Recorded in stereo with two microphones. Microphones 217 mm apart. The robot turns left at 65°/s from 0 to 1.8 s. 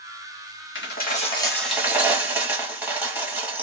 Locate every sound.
0.8 s a dropped coin: 60° left, 1.0 m; by 3.6 s 5° right, 1.0 m